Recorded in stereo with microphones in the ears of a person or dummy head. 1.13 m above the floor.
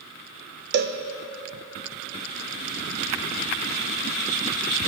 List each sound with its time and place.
0.7 s a cowbell: 50° right (ahead or behind), 0.6 m